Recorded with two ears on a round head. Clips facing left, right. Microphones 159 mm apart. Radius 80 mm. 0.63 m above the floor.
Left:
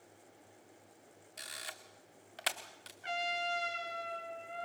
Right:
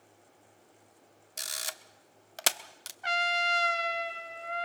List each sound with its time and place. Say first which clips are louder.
1.4 s a camera shutter: right 6 dB; 55° right (ahead or behind), 1.0 m
3.0 s a trumpet: right 5 dB; 65° right (ahead or behind), 1.5 m